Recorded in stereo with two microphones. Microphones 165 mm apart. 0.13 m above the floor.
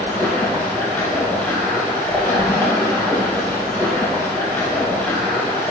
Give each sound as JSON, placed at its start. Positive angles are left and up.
{"t": 0.0, "sound": "running water", "side_deg": 10, "distance_m": 2.5}